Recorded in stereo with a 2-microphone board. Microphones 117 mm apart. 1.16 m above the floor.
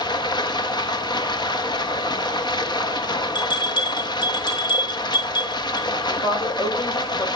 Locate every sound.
0.0 s running water: 40° left (ahead or behind), 1.1 m
3.4 s a bell: 40° left (ahead or behind), 3 m
6.1 s a woman speaking: 60° left (ahead or behind), 4.5 m